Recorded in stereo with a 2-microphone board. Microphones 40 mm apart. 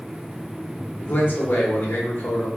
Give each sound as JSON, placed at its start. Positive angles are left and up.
{"t": 1.0, "sound": "a man speaking", "side_deg": 60, "distance_m": 0.8}